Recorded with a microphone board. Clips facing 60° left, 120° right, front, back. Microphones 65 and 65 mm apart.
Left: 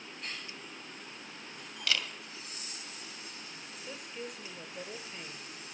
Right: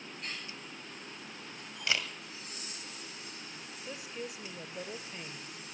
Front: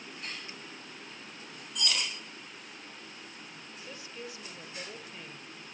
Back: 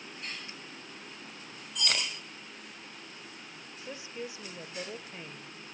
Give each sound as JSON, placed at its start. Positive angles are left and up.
{"t": 1.9, "sound": "a camera shutter", "azimuth_deg": 180, "distance_m": 1.9}
{"t": 3.9, "sound": "a woman speaking", "azimuth_deg": 160, "distance_m": 0.9}